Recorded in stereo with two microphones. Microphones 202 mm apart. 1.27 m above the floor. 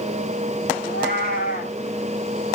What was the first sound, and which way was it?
A cat meowing, 45° left (ahead or behind).